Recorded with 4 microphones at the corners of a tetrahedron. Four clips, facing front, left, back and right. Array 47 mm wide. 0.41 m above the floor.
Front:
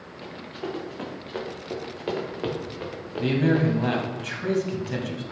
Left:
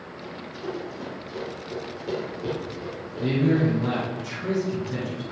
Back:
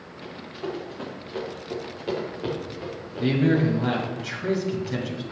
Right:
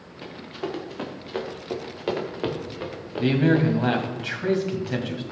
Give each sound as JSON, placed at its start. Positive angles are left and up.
{"t": 0.2, "sound": "running footsteps", "azimuth_deg": -80, "distance_m": 3.5}
{"t": 3.2, "sound": "a man speaking", "azimuth_deg": -80, "distance_m": 2.0}